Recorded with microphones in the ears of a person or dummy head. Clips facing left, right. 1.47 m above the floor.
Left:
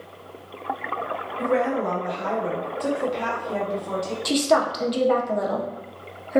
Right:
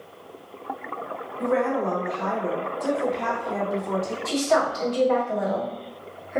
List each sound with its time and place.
1.4 s a woman speaking: 45° left (ahead or behind), 1.2 m
4.2 s a woman speaking: 55° left (ahead or behind), 0.6 m